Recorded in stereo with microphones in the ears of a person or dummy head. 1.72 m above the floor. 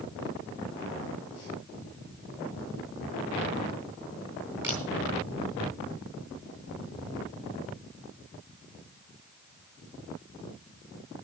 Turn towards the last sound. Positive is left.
turn(degrees=-15)  # may be behind; listen again after turning